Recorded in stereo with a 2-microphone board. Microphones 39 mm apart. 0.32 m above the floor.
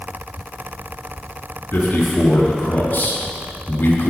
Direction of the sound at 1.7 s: 65° left (ahead or behind).